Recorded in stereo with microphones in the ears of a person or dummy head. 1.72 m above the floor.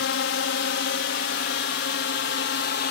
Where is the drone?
70° left (ahead or behind); by 2.9 s 60° left (ahead or behind).